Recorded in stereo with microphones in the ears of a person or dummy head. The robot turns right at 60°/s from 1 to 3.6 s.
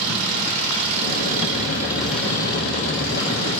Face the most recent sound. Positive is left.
turn(degrees=90)